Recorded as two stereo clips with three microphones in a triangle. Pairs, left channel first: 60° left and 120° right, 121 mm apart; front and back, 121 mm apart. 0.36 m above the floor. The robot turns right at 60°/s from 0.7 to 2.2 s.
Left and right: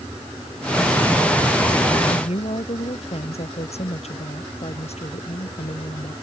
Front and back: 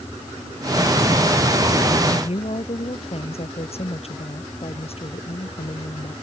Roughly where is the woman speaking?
Ahead left.